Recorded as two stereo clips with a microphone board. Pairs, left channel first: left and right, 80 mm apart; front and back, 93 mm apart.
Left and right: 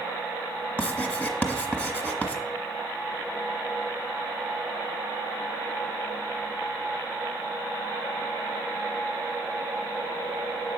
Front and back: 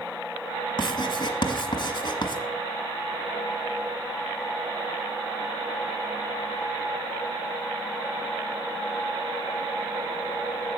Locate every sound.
0.8 s writing: 20° left, 1.2 m